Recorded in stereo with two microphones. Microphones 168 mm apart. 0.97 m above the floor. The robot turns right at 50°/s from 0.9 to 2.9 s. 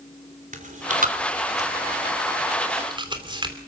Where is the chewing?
50° right (ahead or behind), 3 m; by 3.6 s 30° right (ahead or behind), 3 m.